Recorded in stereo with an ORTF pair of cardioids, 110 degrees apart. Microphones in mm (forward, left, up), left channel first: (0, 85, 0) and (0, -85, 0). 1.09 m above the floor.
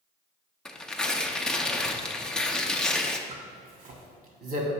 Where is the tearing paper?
5° left, 0.5 m.